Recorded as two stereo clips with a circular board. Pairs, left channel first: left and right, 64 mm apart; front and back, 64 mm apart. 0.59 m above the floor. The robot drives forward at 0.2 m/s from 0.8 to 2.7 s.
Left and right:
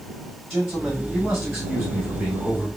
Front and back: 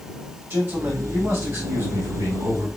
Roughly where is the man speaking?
Behind.